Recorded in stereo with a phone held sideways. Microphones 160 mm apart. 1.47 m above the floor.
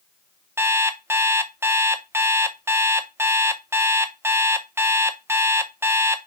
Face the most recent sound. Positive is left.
turn(degrees=-15)  # may be behind; listen again after turning